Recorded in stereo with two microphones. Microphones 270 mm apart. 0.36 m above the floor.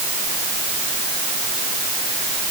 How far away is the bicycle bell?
I don't hear a bicycle bell.